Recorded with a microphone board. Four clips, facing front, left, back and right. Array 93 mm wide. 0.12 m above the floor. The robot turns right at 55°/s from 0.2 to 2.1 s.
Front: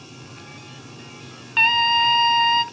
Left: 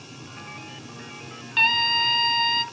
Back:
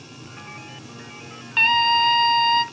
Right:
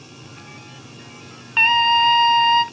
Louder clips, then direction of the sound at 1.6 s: Right 7 dB, even; 85° right.